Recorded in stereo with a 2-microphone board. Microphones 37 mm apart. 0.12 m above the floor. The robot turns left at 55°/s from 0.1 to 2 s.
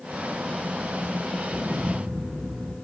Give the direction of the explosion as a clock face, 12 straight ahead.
4 o'clock.